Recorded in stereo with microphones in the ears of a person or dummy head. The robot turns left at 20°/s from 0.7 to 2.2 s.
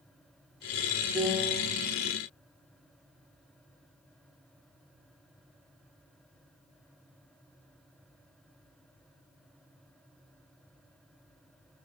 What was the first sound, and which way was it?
A piano, 10° right (ahead or behind).